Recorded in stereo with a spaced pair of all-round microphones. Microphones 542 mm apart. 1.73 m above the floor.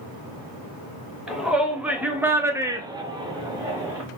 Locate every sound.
1.3 s a shout: centre (ahead or behind), 1.2 m; by 4.0 s 5° right (ahead or behind), 0.8 m